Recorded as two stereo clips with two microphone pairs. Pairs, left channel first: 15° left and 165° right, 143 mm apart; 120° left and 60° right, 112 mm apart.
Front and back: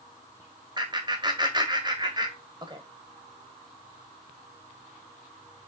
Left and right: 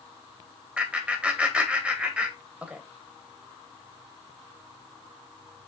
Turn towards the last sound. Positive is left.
turn(degrees=-135)